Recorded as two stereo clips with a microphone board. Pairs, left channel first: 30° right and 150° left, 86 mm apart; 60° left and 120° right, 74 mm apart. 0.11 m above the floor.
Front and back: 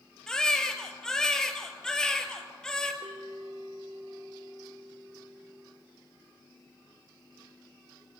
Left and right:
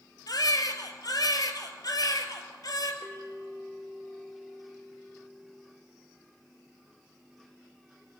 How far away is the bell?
About 3 m.